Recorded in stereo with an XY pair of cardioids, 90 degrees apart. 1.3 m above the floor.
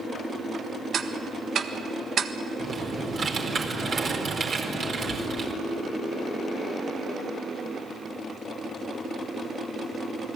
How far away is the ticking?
About 1.6 m.